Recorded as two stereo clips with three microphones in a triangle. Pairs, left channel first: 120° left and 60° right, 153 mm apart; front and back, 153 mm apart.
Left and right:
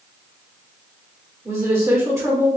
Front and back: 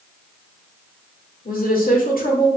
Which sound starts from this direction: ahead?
A woman speaking, at 1.4 s.